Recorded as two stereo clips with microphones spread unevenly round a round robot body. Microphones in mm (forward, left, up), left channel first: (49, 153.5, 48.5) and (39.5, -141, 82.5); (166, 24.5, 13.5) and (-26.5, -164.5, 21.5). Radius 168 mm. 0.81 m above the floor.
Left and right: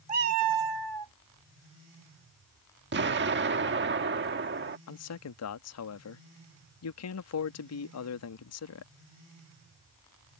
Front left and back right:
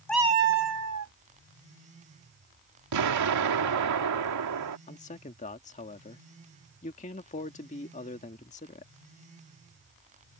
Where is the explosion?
150° right.